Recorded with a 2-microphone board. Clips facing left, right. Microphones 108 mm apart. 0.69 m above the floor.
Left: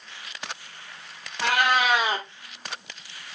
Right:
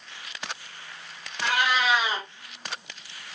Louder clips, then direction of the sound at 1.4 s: Left 2 dB; 55° left (ahead or behind).